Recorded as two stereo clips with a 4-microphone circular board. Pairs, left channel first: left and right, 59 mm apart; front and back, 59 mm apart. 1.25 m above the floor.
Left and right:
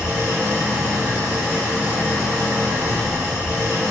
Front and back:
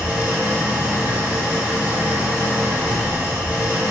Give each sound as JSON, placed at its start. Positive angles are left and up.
{"t": 0.0, "sound": "an engine running", "azimuth_deg": -130, "distance_m": 1.2}